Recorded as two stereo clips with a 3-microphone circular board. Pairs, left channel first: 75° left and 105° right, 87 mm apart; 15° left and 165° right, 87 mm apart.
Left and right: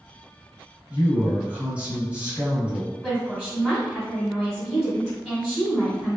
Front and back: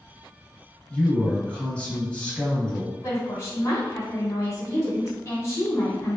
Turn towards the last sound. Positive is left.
turn(degrees=-10)